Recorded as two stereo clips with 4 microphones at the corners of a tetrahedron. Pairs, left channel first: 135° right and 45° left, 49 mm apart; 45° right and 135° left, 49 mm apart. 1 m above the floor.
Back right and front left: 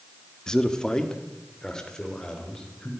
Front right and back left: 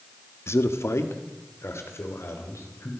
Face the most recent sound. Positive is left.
turn(degrees=-60)